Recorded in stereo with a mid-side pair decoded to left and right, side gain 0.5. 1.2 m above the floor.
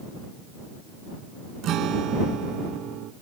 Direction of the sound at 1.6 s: 70° right.